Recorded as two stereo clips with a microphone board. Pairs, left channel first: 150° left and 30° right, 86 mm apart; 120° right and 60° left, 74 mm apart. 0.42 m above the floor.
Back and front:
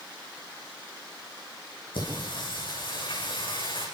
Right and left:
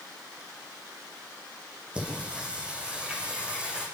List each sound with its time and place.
1.9 s singing: 135° left, 9.5 m